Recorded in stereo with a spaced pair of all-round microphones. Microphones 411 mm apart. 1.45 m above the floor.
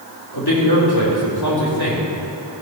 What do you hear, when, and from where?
0.3 s a man speaking: 65° left (ahead or behind), 3.5 m